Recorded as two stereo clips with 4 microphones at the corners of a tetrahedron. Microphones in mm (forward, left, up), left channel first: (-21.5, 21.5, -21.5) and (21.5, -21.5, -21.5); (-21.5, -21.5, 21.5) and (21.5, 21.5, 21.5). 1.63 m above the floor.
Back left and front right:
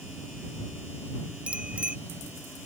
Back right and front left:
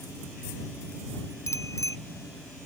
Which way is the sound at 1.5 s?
115° right.